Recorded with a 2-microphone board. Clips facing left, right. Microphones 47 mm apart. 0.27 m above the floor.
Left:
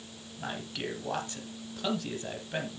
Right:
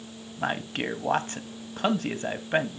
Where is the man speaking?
45° right (ahead or behind), 1.6 m.